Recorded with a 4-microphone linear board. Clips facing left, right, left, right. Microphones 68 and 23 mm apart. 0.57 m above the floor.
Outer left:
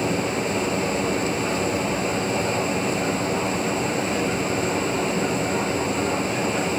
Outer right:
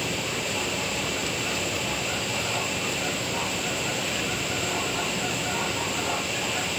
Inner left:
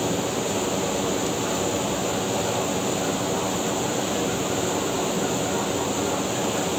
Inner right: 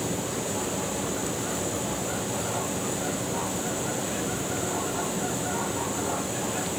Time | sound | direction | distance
0.0 | running water | 30° left (ahead or behind) | 4 m